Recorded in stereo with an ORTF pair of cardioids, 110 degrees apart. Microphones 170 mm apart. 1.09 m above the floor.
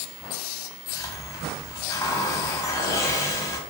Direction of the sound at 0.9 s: 20° left.